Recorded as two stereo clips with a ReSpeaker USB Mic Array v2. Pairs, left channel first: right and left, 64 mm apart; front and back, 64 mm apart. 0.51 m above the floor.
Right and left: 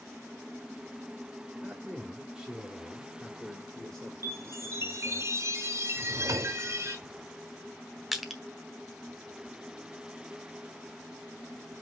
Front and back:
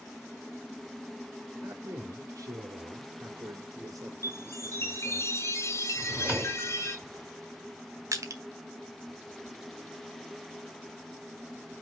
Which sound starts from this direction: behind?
Crushing, at 8.1 s.